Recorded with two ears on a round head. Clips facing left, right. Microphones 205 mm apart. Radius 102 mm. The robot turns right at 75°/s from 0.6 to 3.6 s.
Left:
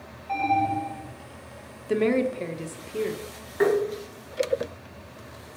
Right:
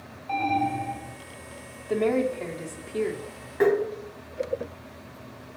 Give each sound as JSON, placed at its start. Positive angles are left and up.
{"t": 0.3, "sound": "an alarm", "azimuth_deg": -70, "distance_m": 3.5}
{"t": 1.9, "sound": "a woman speaking", "azimuth_deg": 100, "distance_m": 0.7}
{"t": 3.6, "sound": "tapping", "side_deg": 0, "distance_m": 2.0}